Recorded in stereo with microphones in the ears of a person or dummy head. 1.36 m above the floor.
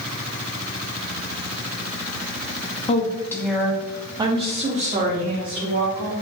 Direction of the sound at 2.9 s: 35° left (ahead or behind).